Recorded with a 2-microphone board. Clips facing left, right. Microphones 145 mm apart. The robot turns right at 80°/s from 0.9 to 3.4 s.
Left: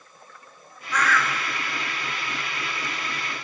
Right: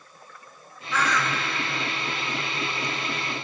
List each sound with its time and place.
0.9 s a bird: straight behind, 0.6 m; by 1.4 s 140° right, 0.6 m